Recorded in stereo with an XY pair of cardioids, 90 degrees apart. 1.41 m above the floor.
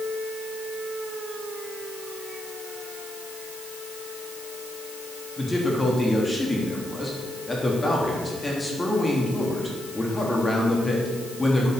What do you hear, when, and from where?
5.4 s a man speaking: 25° left, 3.5 m